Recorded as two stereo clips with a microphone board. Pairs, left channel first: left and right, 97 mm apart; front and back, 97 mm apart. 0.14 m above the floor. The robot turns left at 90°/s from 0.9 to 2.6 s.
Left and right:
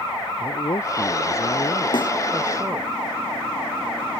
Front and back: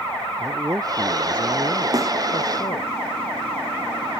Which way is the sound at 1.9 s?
130° left.